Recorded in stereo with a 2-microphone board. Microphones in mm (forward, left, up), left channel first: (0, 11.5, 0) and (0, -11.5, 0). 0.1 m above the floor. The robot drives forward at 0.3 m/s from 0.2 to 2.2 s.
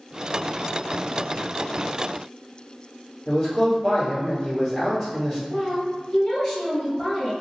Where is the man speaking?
Centre (ahead or behind), 1.9 m.